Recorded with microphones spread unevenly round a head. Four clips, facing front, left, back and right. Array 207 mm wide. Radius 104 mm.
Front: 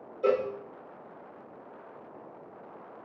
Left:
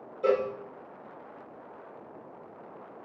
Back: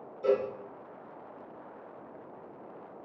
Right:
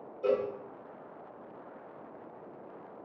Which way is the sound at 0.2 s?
20° left.